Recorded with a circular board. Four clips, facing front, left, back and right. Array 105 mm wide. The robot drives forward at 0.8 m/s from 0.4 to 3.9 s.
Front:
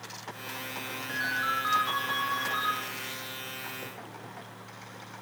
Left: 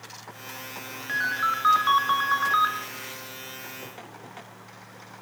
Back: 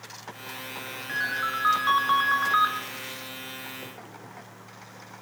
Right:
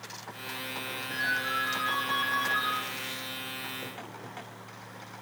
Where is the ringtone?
105° left, 1.8 m; by 2.7 s 135° left, 2.5 m.